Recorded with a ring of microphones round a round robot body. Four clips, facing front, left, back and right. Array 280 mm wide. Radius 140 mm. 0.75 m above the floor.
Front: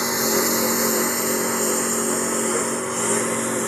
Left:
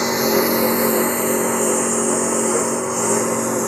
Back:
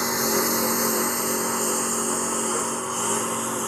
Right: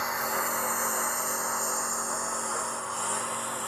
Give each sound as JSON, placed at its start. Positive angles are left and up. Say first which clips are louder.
{"t": 0.0, "sound": "a lawn mower", "louder": "left 13 dB, front 2 dB", "azimuth_deg": 85}